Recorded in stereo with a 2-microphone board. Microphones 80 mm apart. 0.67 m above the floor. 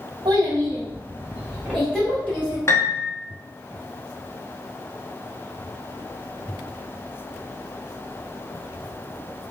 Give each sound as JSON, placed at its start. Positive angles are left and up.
{"t": 0.2, "sound": "a child speaking", "side_deg": -70, "distance_m": 0.9}
{"t": 2.7, "sound": "a piano", "side_deg": 30, "distance_m": 0.7}